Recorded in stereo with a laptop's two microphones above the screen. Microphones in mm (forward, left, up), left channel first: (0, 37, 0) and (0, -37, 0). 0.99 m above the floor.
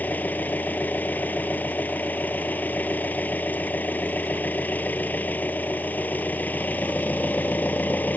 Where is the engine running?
25° left (ahead or behind).